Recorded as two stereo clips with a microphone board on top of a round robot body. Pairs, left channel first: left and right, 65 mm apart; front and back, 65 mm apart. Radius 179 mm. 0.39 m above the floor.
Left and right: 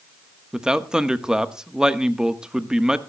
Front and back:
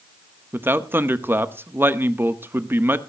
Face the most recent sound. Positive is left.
turn(degrees=-160)